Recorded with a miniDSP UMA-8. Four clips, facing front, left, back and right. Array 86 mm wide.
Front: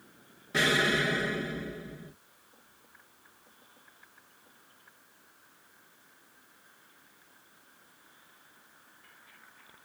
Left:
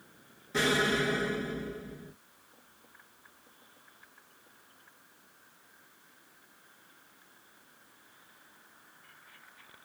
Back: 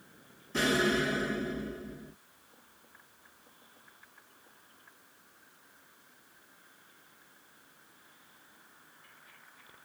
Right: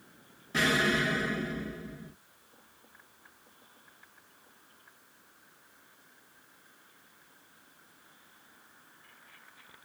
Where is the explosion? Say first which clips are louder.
Even, front 1 dB; 15° right, 1.6 m.